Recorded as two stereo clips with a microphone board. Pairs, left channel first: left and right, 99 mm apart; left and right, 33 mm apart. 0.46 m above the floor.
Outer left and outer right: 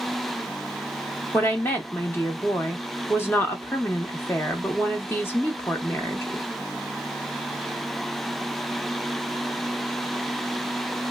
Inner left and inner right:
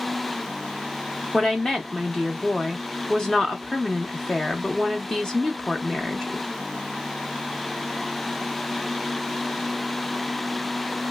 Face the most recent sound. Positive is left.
turn(degrees=20)  # may be behind; listen again after turning